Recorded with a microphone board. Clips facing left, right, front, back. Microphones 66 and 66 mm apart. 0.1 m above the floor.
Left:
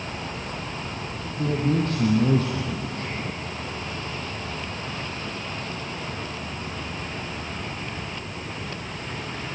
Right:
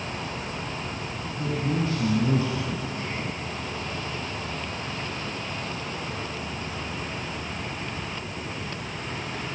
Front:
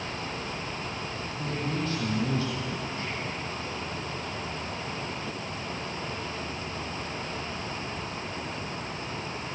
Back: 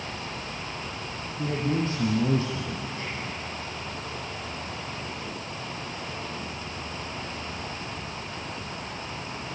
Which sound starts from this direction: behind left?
A man speaking, at 1.4 s.